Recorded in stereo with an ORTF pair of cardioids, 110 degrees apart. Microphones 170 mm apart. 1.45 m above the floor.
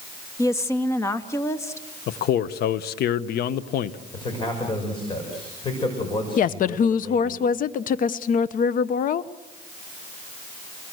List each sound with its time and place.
0.4 s a woman speaking: 15° left, 1.7 m
2.1 s a man speaking: 65° left, 1.2 m
4.1 s a man speaking: 30° left, 6.5 m
6.4 s a woman speaking: 55° left, 0.9 m